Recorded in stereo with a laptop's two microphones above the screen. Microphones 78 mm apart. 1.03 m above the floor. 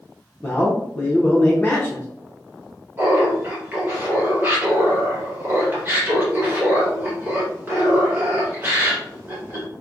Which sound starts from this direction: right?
Laughter, at 3.0 s.